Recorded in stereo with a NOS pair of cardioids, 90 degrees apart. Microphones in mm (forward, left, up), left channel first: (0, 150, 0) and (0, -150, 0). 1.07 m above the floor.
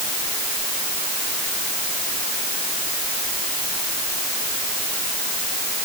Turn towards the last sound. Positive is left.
No sound to turn to.